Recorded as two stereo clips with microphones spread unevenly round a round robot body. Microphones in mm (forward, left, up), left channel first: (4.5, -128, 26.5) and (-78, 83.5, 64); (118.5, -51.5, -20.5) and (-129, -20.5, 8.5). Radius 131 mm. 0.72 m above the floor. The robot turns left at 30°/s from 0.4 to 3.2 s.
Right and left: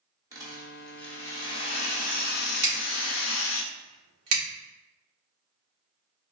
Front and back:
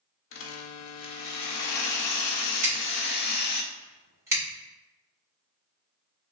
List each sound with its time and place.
0.3 s a rattle: 30° left, 0.7 m; by 3.6 s 55° right, 0.7 m
2.6 s scissors: 105° left, 1.4 m; by 4.4 s 90° left, 1.4 m